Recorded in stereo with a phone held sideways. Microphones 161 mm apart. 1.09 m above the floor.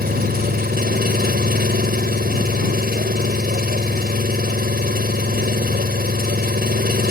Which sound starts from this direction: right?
An engine running, at 0.0 s.